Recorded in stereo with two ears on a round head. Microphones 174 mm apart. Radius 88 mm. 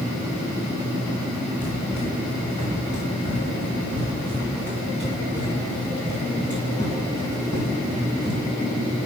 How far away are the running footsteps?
About 4.5 m.